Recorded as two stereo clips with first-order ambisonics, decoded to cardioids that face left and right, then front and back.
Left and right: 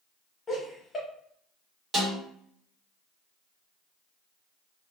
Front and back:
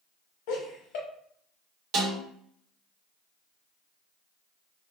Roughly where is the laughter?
Ahead.